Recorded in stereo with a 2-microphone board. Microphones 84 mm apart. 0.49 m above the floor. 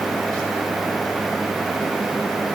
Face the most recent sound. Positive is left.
No sound to turn to.